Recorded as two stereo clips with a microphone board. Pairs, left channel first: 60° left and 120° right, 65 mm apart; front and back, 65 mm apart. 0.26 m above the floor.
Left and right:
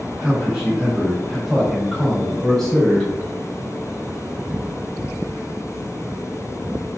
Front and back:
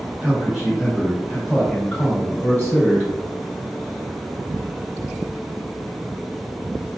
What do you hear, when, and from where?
0.2 s a man speaking: 160° right, 1.6 m; by 3.1 s 10° right, 1.7 m